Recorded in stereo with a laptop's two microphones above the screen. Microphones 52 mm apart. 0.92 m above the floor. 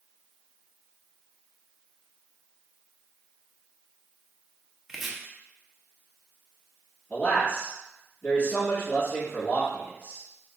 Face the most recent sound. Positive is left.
turn(degrees=35)  # may be behind; listen again after turning